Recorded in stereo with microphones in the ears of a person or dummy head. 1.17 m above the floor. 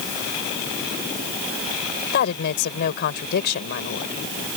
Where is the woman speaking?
50° left (ahead or behind).